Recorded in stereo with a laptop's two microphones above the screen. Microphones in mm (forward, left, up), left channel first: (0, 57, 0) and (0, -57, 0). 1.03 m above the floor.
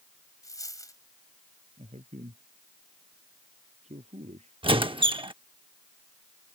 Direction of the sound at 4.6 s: 50° right (ahead or behind).